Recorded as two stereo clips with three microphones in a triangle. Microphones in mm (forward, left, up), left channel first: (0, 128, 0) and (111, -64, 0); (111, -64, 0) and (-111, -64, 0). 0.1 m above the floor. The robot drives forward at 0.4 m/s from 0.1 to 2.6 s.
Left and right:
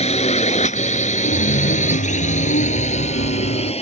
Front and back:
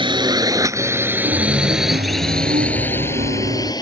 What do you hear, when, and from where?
0.0 s a drone: 135° left; by 3.8 s 65° left
1.2 s a chime: 135° left; by 3.7 s 140° left